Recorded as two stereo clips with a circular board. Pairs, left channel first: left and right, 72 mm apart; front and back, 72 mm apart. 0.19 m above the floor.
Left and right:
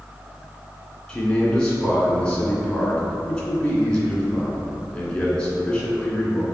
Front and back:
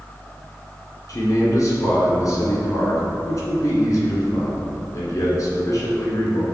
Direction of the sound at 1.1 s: 15° left.